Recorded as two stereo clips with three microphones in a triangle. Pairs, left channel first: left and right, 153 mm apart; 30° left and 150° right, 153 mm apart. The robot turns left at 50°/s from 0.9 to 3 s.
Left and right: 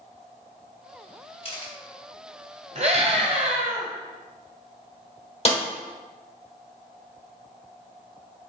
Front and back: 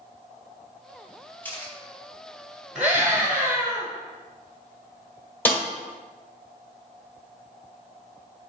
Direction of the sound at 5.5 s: 100° left.